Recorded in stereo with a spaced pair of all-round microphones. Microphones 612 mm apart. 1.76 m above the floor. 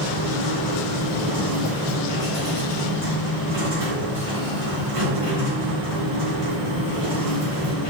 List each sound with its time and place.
0.0 s a machine running: 60° right (ahead or behind), 4.5 m